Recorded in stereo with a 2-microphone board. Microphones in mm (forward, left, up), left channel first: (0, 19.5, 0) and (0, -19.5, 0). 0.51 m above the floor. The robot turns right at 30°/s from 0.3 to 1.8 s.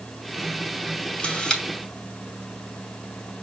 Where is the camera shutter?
35° left (ahead or behind), 2 m; by 1.6 s 25° left (ahead or behind), 2 m.